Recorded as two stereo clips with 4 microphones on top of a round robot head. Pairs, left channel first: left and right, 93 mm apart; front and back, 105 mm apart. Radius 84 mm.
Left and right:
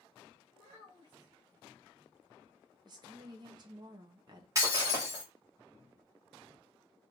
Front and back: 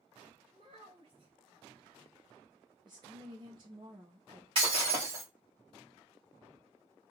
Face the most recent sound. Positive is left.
turn(degrees=-135)